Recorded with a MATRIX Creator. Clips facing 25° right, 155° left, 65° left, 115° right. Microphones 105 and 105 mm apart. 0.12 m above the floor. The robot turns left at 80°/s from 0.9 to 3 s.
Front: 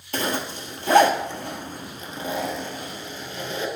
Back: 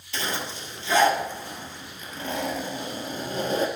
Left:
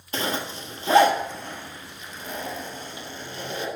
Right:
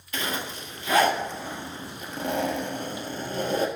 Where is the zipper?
15° left, 1.4 m; by 3.7 s 155° right, 1.4 m.